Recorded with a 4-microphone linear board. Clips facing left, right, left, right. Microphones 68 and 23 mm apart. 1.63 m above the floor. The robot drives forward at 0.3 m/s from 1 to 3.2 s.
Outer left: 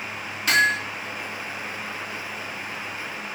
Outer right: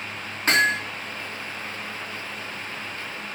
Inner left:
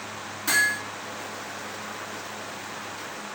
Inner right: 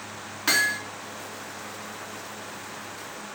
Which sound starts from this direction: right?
Hammering, at 0.5 s.